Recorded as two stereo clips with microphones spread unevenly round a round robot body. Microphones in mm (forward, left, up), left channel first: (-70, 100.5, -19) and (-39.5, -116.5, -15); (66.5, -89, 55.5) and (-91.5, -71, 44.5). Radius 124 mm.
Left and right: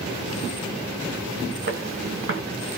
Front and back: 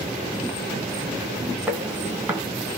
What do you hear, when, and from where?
1.7 s footsteps: 110° right, 1.5 m